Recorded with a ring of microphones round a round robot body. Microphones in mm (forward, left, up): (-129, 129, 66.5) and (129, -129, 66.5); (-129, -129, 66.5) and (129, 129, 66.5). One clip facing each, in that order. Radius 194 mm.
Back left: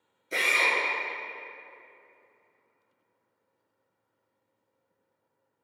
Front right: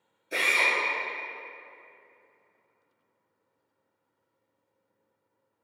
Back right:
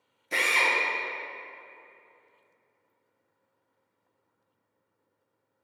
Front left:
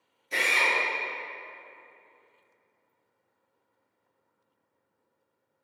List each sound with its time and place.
0.3 s a drill: 140° right, 0.9 m